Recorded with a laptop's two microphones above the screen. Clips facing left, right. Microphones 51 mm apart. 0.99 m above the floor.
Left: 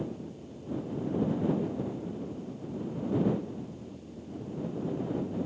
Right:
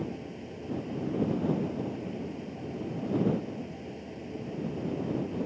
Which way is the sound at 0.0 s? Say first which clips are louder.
Right 1 dB; 65° right (ahead or behind).